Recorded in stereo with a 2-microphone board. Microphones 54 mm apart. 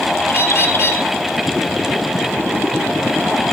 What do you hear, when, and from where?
0.3 s a bird: 50° left (ahead or behind), 1.2 m